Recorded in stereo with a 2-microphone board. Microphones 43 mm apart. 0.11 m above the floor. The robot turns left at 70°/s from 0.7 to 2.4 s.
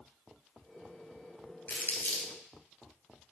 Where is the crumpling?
40° left (ahead or behind), 1.8 m.